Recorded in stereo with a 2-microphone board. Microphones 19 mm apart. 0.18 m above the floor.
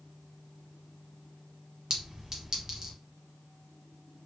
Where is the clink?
30° right (ahead or behind), 1.2 m.